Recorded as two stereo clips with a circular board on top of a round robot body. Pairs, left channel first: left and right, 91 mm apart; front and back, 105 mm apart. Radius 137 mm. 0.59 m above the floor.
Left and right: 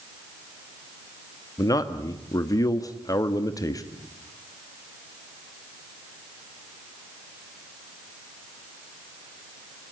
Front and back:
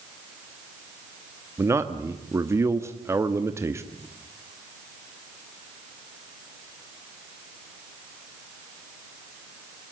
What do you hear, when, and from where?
1.6 s a man speaking: 125° left, 1.4 m